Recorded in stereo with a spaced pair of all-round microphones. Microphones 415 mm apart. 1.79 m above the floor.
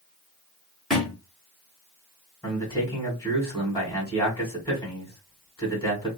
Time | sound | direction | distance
0.9 | a thud | centre (ahead or behind) | 1.5 m
2.4 | a man speaking | 5° left (ahead or behind) | 1.7 m